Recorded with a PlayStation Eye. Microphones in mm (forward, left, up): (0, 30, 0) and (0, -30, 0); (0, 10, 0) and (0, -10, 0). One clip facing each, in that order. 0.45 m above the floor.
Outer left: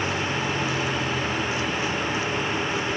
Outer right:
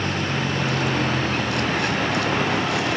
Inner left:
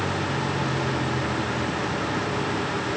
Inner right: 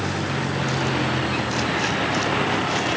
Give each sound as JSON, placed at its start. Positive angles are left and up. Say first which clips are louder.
{"t": 0.0, "sound": "a vehicle", "louder": "outer right 1 dB, inner right 1 dB", "side_deg": -55}